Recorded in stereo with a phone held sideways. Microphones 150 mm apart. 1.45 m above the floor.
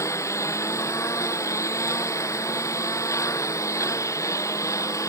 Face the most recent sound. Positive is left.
turn(degrees=20)  # may be behind; listen again after turning